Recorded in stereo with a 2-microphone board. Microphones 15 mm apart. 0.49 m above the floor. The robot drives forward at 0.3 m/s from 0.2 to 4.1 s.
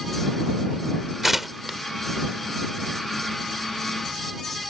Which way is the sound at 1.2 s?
15° right (ahead or behind).